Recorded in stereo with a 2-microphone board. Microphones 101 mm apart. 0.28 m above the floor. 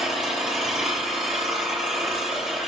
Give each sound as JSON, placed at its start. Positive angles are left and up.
{"t": 0.0, "sound": "an engine running", "side_deg": -5, "distance_m": 6.0}